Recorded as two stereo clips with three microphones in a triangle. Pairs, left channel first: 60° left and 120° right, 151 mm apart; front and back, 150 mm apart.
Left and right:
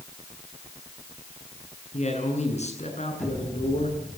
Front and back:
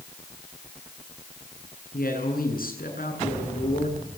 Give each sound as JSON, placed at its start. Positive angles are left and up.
{"t": 1.9, "sound": "a man speaking", "azimuth_deg": 20, "distance_m": 9.0}